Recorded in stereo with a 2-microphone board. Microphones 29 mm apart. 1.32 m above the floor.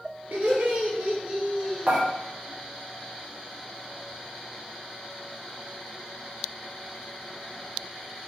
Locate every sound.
0.3 s laughter: 60° right (ahead or behind), 1.0 m; by 2.0 s 10° left (ahead or behind), 1.0 m
1.9 s dishes clattering: 40° right (ahead or behind), 0.9 m